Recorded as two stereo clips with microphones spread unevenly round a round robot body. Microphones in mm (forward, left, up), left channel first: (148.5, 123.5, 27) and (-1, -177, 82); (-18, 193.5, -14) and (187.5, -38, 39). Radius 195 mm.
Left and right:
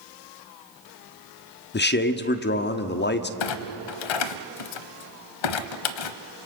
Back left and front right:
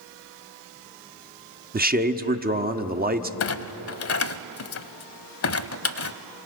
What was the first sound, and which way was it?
A man speaking, 15° left.